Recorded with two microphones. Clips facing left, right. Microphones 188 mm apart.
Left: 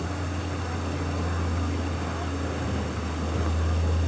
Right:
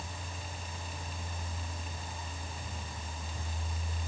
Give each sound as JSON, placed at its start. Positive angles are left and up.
{"t": 0.0, "sound": "a vehicle", "side_deg": 85}